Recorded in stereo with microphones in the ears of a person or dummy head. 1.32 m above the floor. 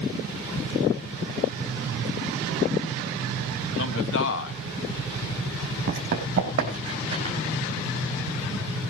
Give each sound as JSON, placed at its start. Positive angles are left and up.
{"t": 3.8, "sound": "a man speaking", "side_deg": 65, "distance_m": 1.7}
{"t": 5.9, "sound": "running footsteps", "side_deg": -45, "distance_m": 3.0}